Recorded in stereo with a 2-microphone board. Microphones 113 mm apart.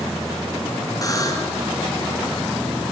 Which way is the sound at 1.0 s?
30° left (ahead or behind).